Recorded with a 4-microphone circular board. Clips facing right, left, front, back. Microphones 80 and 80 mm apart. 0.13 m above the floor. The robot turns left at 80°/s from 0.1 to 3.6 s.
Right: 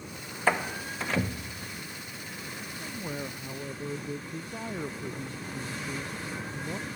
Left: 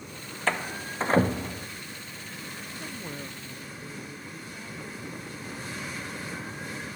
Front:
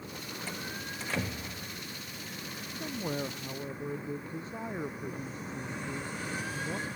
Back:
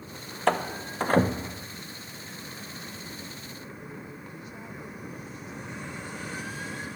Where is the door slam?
165° right; by 1.7 s 100° left.